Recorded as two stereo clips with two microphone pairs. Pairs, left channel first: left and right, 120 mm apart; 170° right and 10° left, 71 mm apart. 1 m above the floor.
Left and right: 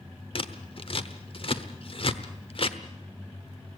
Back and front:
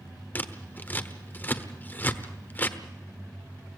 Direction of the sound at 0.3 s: 125° left.